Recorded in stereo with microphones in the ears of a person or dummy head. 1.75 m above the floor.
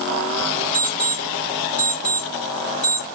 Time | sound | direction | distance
0.7 | an alarm clock | 5° left (ahead or behind) | 1.5 m